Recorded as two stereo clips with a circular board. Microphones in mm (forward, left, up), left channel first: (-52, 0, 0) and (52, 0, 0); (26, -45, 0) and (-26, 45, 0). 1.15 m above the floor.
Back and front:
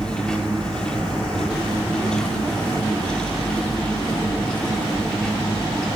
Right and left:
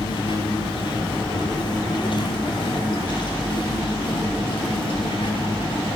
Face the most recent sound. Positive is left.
turn(degrees=-95)